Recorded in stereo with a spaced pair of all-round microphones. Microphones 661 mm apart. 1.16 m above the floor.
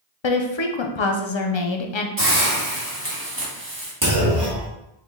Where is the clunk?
25° right (ahead or behind), 1.4 m.